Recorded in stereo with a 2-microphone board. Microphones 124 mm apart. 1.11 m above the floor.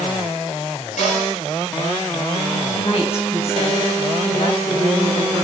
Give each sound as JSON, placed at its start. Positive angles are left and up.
{"t": 1.0, "sound": "a cupboard door", "side_deg": 75, "distance_m": 10.0}
{"t": 2.7, "sound": "a woman speaking", "side_deg": 55, "distance_m": 9.0}